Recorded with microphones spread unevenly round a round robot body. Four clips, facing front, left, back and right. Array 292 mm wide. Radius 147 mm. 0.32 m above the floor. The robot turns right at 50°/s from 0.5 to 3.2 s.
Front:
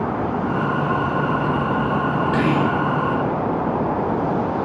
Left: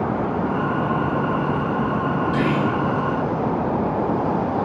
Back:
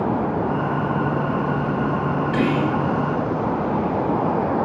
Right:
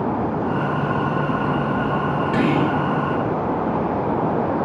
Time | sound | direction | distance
2.3 | whispering | 35° right | 1.4 m